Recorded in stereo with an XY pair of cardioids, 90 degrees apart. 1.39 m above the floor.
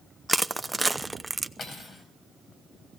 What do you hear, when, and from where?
0.3 s crushing: 15° right, 0.8 m
1.6 s cutlery clinking: 40° left, 5 m